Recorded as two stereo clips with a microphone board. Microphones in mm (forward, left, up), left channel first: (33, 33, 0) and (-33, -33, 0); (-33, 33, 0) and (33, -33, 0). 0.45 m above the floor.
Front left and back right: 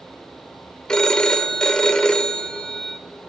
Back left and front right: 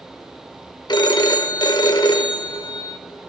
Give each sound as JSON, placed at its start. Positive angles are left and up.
{"t": 0.9, "sound": "a phone ringing", "azimuth_deg": 125, "distance_m": 0.6}